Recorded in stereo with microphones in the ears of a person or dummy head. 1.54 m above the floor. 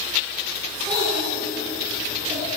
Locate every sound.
0.9 s a child speaking: 15° right (ahead or behind), 9.5 m; by 2.5 s 20° right (ahead or behind), 9 m